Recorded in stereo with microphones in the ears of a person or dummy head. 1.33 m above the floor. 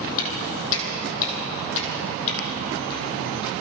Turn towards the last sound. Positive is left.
turn(degrees=25)  # may be behind; listen again after turning